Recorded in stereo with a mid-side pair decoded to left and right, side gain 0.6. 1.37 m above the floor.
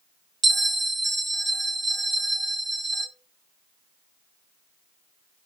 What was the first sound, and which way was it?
A bell, 35° right.